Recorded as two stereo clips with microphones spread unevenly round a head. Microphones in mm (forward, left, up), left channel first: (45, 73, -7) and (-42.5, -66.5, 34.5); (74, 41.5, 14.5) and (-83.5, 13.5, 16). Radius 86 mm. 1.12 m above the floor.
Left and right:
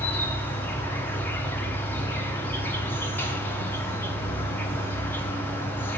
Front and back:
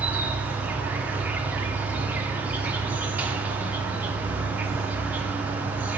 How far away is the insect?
About 0.9 m.